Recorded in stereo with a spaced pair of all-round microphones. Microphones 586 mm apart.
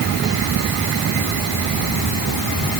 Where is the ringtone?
No ringtone in this recording.